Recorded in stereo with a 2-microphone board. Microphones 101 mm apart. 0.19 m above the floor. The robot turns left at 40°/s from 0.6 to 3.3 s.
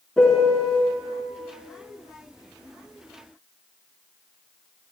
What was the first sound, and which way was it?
A piano, 5° left (ahead or behind).